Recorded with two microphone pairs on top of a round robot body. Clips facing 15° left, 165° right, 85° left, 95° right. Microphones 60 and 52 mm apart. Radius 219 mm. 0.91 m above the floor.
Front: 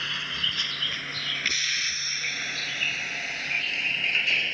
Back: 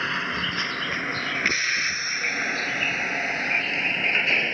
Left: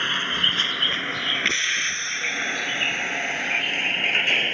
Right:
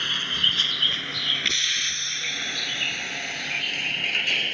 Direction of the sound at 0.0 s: 145° left.